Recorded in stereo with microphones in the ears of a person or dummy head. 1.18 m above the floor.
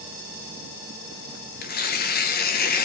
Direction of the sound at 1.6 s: 45° left (ahead or behind).